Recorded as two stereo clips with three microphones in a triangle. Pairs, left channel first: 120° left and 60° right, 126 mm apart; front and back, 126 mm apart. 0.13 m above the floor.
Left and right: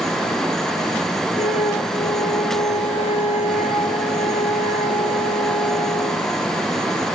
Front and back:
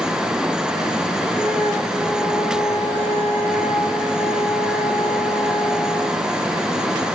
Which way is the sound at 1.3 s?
95° left.